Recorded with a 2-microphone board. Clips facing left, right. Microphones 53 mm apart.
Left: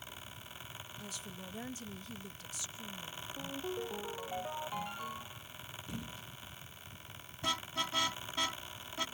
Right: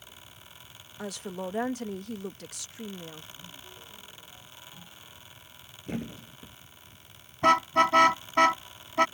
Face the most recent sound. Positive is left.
turn(degrees=-55)  # may be behind; listen again after turning